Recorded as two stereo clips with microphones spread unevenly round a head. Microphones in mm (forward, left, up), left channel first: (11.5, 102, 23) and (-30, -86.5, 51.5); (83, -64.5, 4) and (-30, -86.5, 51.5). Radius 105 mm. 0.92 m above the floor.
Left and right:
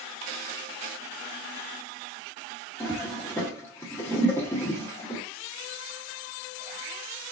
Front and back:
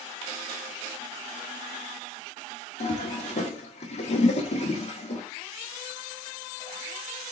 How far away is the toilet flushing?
About 1.6 m.